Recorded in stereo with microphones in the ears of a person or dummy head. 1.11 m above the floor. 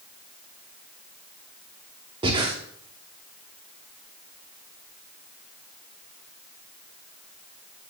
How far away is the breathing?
About 1.1 m.